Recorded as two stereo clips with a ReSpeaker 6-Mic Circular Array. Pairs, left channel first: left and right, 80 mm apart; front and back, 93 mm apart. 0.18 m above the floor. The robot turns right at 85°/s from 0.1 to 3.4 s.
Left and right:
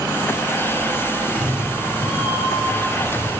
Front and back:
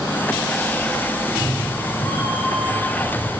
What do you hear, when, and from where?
1.2 s a cat meowing: 85° right, 4 m; by 3.3 s 90° left, 4 m